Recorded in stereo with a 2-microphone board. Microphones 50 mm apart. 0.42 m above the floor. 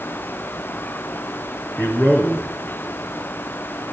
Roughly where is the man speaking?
Left.